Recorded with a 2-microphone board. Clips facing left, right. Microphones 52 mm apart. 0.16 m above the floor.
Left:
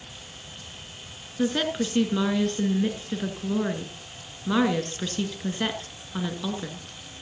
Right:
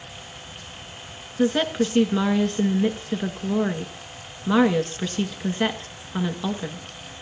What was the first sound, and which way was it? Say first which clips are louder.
A woman speaking: right 4 dB; 15° right (ahead or behind).